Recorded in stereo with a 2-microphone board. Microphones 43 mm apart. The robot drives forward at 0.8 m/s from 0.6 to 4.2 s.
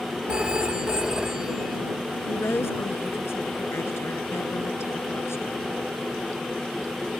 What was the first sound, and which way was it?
A phone ringing, 25° right (ahead or behind).